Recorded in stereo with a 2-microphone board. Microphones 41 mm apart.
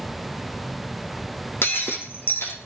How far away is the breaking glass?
About 4 m.